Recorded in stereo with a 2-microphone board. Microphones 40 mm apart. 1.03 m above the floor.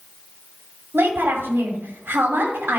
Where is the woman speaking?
80° right, 2.5 m.